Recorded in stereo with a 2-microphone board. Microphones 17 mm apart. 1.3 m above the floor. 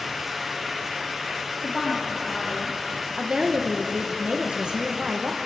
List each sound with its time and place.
1.6 s a woman speaking: 15° left (ahead or behind), 2.5 m
3.2 s a woman speaking: 55° right (ahead or behind), 0.9 m